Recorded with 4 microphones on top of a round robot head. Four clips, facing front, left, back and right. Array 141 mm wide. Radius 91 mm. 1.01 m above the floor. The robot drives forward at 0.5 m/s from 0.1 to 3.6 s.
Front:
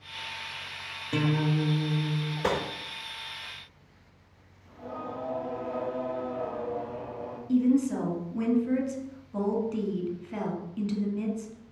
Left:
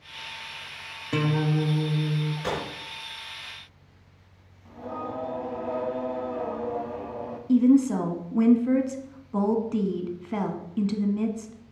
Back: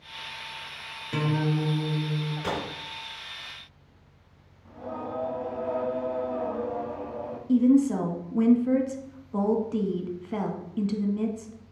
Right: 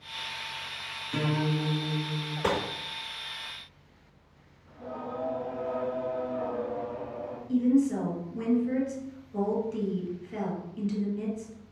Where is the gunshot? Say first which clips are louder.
Right 5 dB, front 4 dB; 60° right, 4.5 m; by 2.6 s 65° right, 4 m.